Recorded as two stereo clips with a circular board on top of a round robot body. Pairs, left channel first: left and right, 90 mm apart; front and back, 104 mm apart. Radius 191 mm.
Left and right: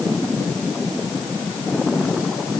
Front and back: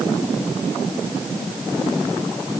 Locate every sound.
Only background noise.